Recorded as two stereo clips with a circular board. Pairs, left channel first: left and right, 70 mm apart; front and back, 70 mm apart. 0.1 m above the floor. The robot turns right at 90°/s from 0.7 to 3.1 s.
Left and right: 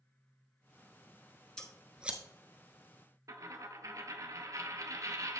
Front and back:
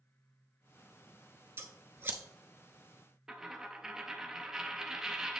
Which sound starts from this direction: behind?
Scissors, at 1.6 s.